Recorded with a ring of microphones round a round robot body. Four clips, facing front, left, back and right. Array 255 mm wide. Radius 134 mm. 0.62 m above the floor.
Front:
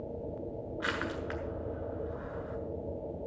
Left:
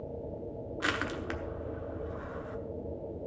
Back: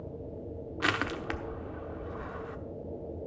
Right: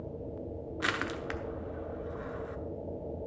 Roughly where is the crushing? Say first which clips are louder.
Even, back 4 dB; behind.